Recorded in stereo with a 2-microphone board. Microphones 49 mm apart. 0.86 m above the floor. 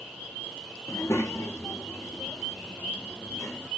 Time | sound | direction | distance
0.9 | a child speaking | 65° left (ahead or behind) | 0.6 m